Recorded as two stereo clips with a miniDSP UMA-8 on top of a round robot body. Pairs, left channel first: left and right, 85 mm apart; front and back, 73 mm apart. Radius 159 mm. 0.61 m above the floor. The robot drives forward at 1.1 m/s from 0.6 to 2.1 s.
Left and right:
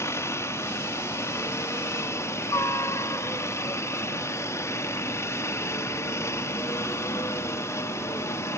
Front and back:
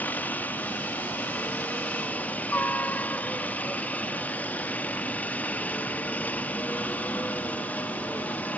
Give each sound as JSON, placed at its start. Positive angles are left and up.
{"t": 0.0, "sound": "a helicopter", "azimuth_deg": 55}